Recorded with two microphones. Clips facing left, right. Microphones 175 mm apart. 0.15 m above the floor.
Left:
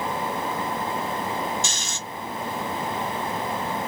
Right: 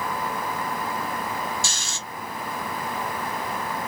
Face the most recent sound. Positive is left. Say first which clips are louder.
# left 2 dB
turn(degrees=20)  # may be behind; listen again after turning